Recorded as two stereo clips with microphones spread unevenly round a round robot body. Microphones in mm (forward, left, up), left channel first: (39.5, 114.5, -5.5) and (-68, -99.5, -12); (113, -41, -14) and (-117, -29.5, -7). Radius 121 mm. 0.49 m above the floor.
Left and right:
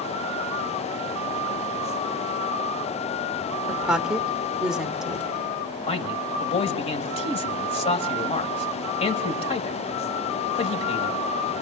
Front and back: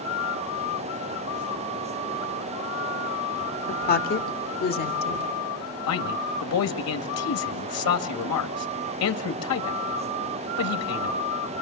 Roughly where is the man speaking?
Ahead.